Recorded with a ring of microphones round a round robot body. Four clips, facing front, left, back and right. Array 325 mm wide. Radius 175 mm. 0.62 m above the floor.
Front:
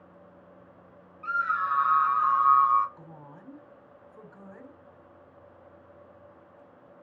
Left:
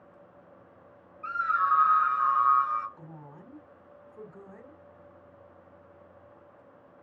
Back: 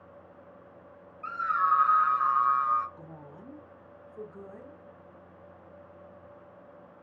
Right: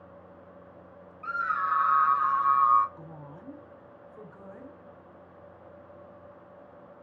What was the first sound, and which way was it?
A scream, 50° right.